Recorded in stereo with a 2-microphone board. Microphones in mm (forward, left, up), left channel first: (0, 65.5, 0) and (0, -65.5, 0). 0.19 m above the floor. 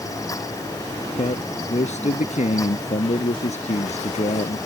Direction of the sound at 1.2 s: 60° left (ahead or behind).